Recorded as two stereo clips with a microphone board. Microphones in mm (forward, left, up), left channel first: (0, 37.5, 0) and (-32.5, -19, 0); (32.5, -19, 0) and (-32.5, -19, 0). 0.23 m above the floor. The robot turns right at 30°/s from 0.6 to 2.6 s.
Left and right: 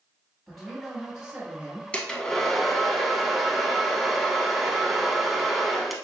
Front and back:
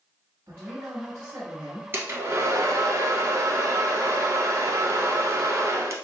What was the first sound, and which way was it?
A man speaking, 150° left.